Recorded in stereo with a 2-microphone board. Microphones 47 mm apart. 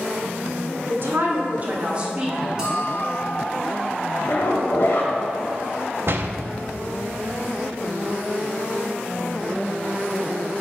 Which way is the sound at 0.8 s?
55° right (ahead or behind).